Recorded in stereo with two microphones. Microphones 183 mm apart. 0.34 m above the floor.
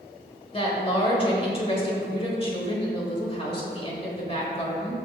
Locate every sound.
0.5 s a woman speaking: 30° left (ahead or behind), 1.2 m